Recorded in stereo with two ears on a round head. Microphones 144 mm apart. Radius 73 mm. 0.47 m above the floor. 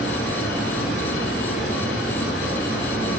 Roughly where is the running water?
Left.